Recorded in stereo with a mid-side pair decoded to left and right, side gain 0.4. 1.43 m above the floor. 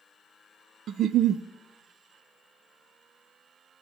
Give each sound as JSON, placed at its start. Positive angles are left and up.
{"t": 0.9, "sound": "a giggle", "azimuth_deg": -65, "distance_m": 0.6}